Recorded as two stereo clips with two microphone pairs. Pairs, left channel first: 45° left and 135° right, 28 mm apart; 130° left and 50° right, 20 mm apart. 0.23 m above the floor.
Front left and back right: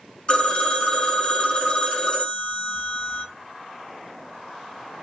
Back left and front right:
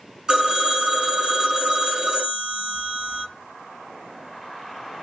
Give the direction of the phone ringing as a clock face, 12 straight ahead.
12 o'clock.